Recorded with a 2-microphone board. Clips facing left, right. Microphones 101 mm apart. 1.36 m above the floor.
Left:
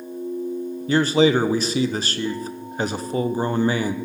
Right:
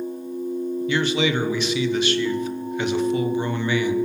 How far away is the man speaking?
About 0.9 m.